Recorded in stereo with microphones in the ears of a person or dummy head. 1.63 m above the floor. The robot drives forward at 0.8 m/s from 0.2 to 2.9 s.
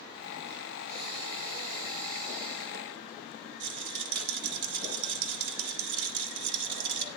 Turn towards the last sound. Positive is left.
turn(degrees=-70)  # may be behind; listen again after turning